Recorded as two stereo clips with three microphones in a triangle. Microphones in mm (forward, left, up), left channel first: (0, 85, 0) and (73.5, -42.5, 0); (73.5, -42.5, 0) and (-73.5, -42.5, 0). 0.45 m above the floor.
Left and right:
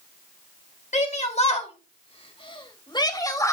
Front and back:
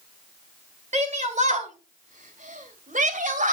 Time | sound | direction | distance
0.9 | a shout | 150° left | 2.5 m